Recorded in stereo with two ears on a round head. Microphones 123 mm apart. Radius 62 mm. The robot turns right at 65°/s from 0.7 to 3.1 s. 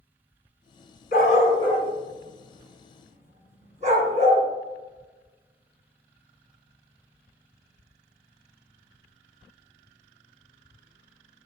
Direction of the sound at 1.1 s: 70° left (ahead or behind).